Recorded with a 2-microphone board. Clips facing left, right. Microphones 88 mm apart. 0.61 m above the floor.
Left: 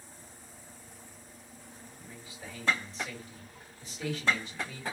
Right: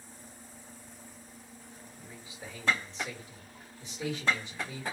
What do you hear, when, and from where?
2.0 s a man speaking: 25° right (ahead or behind), 1.5 m